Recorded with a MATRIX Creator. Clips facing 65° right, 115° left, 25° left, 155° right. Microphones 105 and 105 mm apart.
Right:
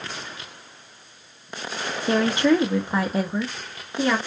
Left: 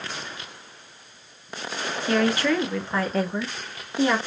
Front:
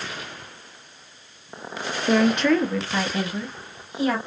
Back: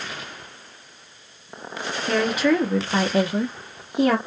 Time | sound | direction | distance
2.1 | a woman speaking | 45° right | 0.8 m